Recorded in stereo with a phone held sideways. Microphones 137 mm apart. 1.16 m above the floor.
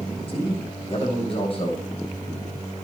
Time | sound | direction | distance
0.3 | a man speaking | 45° left (ahead or behind) | 7.5 m